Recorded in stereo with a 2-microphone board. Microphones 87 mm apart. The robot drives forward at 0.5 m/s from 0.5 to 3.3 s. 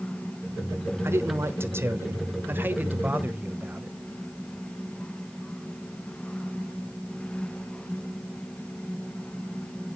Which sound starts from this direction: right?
A man speaking, at 1.0 s.